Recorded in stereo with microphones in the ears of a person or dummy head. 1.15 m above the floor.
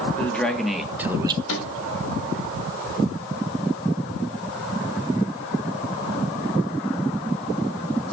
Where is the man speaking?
Centre (ahead or behind), 1.9 m; by 1.4 s 35° right (ahead or behind), 0.5 m.